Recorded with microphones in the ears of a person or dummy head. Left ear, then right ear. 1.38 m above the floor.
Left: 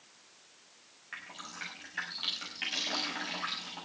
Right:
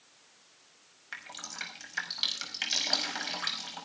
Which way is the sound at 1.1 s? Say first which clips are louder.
Right 3 dB; 80° right.